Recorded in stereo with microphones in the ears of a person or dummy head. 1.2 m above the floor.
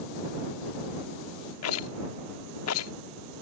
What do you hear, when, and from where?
1.6 s a rattle: 85° left